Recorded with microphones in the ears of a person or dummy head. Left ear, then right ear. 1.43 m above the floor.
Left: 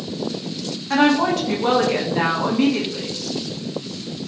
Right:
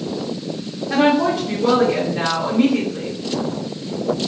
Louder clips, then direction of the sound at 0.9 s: Right 1 dB; 50° left (ahead or behind).